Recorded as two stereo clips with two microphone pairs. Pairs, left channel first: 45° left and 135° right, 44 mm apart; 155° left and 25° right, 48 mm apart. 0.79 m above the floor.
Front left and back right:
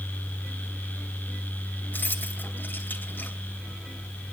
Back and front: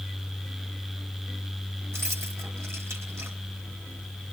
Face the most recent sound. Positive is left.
turn(degrees=0)